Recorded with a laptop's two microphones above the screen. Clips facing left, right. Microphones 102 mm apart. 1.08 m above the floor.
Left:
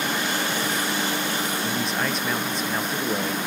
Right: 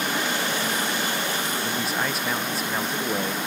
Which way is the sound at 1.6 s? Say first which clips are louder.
Left 1 dB; 5° right (ahead or behind).